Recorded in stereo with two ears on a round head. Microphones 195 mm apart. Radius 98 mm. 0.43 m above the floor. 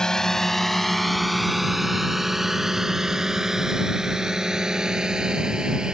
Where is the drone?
5° left (ahead or behind); by 5.9 s 5° right (ahead or behind).